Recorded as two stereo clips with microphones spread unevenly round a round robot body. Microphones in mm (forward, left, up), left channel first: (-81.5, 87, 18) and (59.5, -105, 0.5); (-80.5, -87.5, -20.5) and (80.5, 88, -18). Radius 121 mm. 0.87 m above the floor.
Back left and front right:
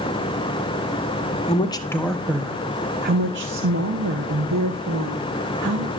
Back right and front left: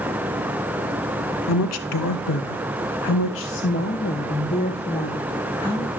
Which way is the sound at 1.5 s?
165° right.